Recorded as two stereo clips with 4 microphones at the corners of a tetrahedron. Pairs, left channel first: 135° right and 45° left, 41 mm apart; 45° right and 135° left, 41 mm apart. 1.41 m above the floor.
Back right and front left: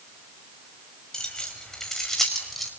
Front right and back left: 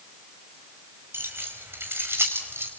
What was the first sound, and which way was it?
Keys jangling, 150° left.